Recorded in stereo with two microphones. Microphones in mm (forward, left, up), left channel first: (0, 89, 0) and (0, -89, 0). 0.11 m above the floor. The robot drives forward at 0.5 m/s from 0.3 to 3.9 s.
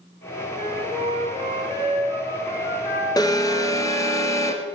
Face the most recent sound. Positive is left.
turn(degrees=15)  # may be behind; listen again after turning